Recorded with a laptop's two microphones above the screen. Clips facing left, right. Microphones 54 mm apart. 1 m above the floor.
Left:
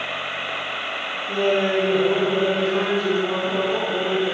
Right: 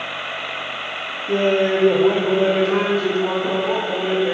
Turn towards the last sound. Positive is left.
turn(degrees=-35)  # may be behind; listen again after turning